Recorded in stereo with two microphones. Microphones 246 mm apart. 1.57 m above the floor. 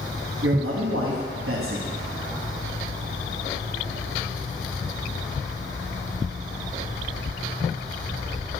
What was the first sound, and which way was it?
A man speaking, 65° right (ahead or behind).